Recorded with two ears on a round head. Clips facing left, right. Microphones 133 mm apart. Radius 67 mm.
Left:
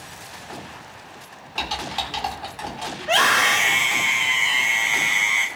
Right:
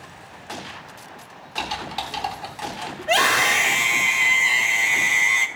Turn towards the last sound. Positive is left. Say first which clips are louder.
# even
turn(degrees=-30)  # may be behind; listen again after turning